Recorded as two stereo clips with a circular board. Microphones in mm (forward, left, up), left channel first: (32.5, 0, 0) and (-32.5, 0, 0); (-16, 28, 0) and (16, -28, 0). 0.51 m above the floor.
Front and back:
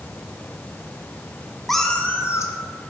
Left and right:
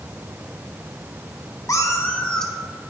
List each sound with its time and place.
1.7 s a cat meowing: 90° left, 0.9 m; by 2.9 s 20° left, 1.4 m